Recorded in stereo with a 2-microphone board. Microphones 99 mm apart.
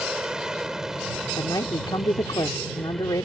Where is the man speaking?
45° left (ahead or behind).